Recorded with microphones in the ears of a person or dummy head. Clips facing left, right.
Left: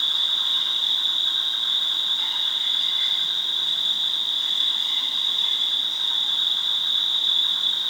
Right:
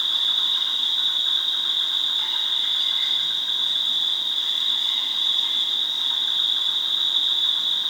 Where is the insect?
Centre (ahead or behind), 3 m.